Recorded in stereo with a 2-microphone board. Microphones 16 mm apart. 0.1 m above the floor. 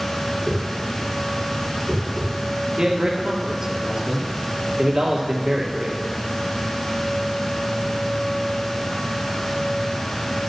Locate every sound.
0.5 s a whoosh: 85° left, 3.5 m
2.8 s a man speaking: 45° right (ahead or behind), 2.5 m